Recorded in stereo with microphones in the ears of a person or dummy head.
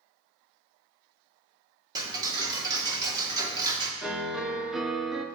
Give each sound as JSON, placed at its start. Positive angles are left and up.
{"t": 1.9, "sound": "ticking", "side_deg": -20, "distance_m": 1.7}
{"t": 4.0, "sound": "a piano", "side_deg": 0, "distance_m": 0.9}